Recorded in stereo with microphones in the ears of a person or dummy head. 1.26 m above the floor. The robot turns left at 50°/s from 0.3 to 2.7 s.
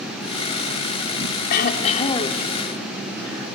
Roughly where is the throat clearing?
Ahead left.